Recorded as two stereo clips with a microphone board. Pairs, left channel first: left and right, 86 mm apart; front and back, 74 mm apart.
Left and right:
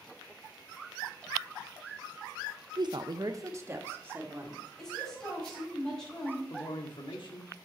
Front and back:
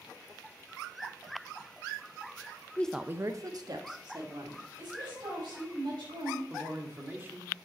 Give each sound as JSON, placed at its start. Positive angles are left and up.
{"t": 2.8, "sound": "a woman speaking", "azimuth_deg": -65, "distance_m": 0.6}
{"t": 4.8, "sound": "a woman speaking", "azimuth_deg": 175, "distance_m": 5.0}
{"t": 6.5, "sound": "a man speaking", "azimuth_deg": 115, "distance_m": 1.7}